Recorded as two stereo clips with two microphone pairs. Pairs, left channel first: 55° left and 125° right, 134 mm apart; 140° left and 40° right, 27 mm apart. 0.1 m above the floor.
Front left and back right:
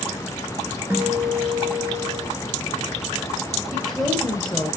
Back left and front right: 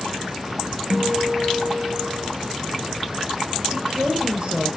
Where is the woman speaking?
35° right, 1.9 m.